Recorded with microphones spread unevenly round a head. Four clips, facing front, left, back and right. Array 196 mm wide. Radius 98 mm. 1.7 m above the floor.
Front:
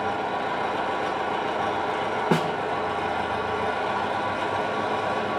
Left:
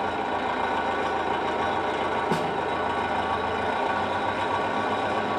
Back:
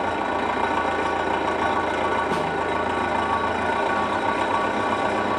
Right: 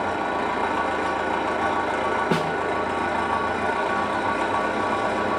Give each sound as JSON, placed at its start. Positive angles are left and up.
{"t": 0.0, "sound": "an engine running", "azimuth_deg": -160, "distance_m": 1.9}
{"t": 2.3, "sound": "a snare drum", "azimuth_deg": -40, "distance_m": 1.4}